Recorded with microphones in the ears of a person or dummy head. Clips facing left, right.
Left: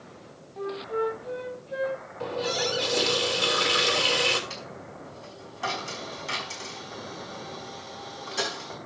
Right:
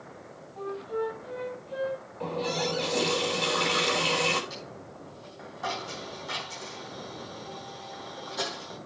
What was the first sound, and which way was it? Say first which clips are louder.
A flute: left 2 dB; 30° left (ahead or behind).